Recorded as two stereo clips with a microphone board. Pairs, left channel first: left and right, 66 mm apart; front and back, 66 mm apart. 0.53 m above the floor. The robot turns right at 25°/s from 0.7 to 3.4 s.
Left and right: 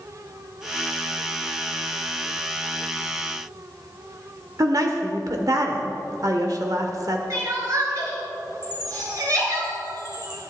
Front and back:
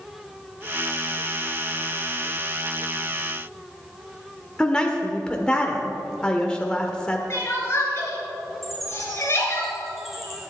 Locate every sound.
4.6 s a woman speaking: 75° right, 1.2 m
7.3 s crying: 55° right, 3.5 m
8.6 s a chime: 90° right, 4 m